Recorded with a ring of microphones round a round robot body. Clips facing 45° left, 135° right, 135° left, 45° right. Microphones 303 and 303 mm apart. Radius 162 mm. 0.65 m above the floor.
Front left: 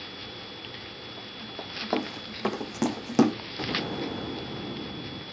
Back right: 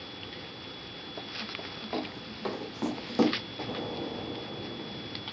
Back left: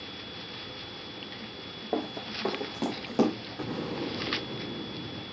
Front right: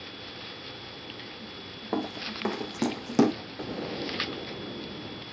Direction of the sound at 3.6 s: 70° left.